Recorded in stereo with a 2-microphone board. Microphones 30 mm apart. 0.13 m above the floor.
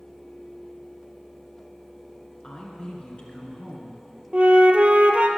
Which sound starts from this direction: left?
A woman speaking, at 2.4 s.